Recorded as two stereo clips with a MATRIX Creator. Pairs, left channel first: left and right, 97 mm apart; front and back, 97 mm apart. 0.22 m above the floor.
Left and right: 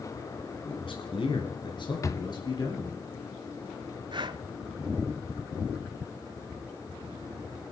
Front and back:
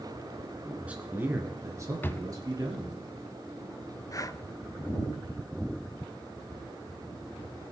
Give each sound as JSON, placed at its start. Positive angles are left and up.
{"t": 0.7, "sound": "a man speaking", "azimuth_deg": 100, "distance_m": 2.0}
{"t": 2.0, "sound": "a drawer", "azimuth_deg": 55, "distance_m": 0.7}
{"t": 4.1, "sound": "breathing", "azimuth_deg": -50, "distance_m": 0.6}